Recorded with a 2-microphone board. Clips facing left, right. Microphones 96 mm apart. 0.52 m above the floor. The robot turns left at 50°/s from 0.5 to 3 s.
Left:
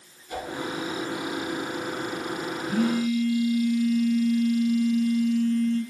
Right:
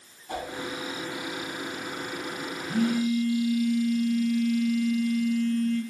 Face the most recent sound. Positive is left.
turn(degrees=55)  # may be behind; listen again after turning